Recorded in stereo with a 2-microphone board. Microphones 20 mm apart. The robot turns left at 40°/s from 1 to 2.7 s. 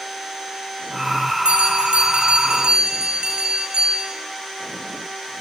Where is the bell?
80° right, 5.5 m; by 4.1 s 130° right, 5.5 m.